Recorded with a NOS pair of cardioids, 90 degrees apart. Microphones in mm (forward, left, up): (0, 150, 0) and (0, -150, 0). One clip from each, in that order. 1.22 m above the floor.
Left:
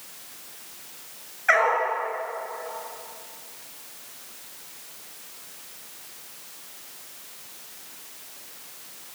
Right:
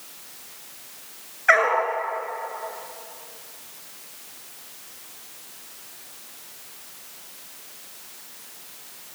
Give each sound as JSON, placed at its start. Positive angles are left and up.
{"t": 1.5, "sound": "a dog barking", "azimuth_deg": -20, "distance_m": 6.5}